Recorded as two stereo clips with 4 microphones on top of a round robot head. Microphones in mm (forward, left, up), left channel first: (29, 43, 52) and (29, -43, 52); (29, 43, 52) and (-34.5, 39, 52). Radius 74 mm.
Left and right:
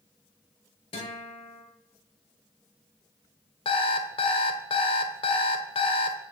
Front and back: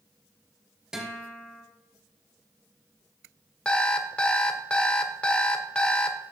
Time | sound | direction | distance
0.9 | a guitar | 105° left | 3.5 m
3.6 | an alarm clock | 80° left | 1.4 m